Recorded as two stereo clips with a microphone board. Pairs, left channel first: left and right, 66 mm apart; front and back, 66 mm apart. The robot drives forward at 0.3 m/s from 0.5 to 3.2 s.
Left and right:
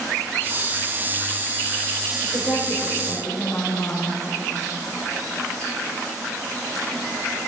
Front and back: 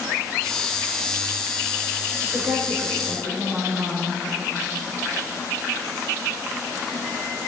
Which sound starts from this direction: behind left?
A woman speaking, at 2.2 s.